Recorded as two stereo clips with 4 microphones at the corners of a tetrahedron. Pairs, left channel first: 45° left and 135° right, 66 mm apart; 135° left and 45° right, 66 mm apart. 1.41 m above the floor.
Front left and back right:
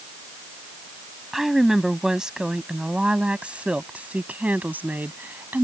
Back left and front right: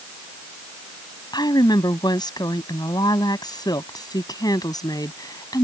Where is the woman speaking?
140° left; by 5.6 s 160° left.